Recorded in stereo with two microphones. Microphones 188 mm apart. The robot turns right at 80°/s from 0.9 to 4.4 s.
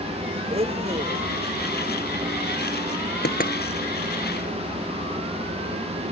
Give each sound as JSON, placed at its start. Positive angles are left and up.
{"t": 0.5, "sound": "a blender", "side_deg": -30}
{"t": 3.2, "sound": "knocking", "side_deg": 65}